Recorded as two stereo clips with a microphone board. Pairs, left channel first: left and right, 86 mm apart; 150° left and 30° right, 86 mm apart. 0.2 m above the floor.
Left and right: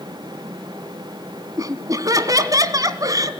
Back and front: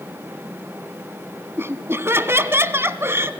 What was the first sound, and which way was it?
Laughter, 80° right.